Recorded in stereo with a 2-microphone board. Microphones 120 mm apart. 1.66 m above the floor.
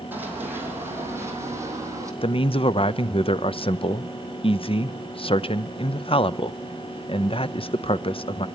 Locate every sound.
0.1 s running footsteps: 15° right (ahead or behind), 3.5 m; by 2.1 s 30° right (ahead or behind), 3 m
2.2 s a man speaking: 50° left (ahead or behind), 0.6 m